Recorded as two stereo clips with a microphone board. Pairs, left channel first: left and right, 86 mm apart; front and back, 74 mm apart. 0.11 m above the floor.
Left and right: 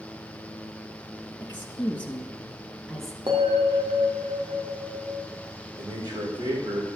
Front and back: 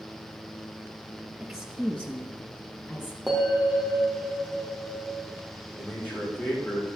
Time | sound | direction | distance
1.4 | a woman speaking | 90° left | 1.6 m
3.3 | a bell | 90° right | 3 m
5.8 | a man speaking | 65° right | 6 m